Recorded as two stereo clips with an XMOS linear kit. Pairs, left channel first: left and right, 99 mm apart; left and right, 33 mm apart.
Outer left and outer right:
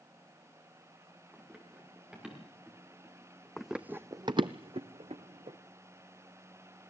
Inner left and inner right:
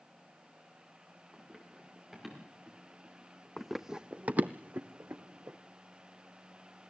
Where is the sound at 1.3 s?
5° right (ahead or behind), 6 m; by 3.5 s 10° right (ahead or behind), 7.5 m.